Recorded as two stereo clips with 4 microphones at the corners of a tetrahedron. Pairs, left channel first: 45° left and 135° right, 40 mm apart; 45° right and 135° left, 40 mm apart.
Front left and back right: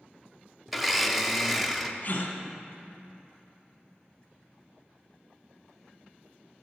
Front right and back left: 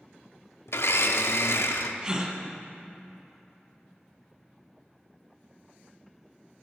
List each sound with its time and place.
0.7 s a blender: 50° right, 0.6 m
2.0 s a gasp: 75° left, 1.0 m